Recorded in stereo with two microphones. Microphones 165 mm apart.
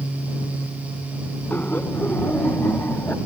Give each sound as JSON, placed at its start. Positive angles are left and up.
{"t": 1.5, "sound": "laughter", "side_deg": 10}